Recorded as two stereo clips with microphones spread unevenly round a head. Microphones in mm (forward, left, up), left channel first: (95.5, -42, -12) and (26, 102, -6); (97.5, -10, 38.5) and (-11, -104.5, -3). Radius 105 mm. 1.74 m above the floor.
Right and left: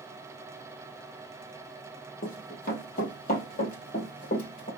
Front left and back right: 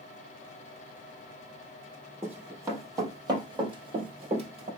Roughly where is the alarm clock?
I don't hear an alarm clock.